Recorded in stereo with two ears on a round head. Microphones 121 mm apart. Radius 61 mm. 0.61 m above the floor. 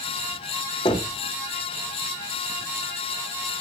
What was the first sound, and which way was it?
Knocking, 35° left (ahead or behind).